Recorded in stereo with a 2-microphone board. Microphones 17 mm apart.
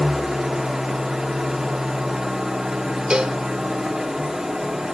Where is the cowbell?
70° right (ahead or behind), 1.0 m.